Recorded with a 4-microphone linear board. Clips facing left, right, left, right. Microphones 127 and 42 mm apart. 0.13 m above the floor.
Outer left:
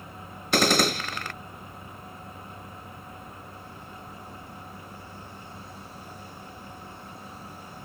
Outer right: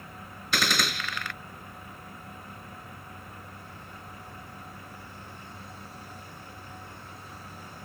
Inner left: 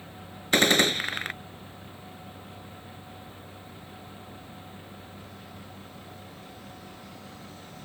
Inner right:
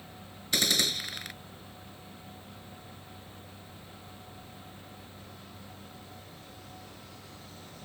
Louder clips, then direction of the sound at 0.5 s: Outer left 7 dB, inner left 8 dB; 45° left (ahead or behind).